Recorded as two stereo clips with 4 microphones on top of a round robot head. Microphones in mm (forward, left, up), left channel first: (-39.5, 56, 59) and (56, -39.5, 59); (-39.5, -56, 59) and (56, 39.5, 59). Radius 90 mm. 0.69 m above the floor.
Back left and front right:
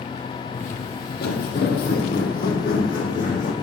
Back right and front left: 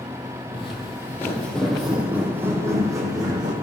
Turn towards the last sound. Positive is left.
turn(degrees=105)